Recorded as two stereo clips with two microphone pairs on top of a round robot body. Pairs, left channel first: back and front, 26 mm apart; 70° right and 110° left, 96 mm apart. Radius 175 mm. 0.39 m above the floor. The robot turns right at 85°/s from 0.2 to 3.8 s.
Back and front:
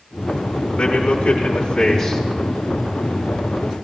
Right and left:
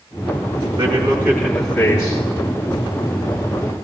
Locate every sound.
0.8 s a man speaking: 125° left, 3.5 m; by 2.2 s 110° right, 3.5 m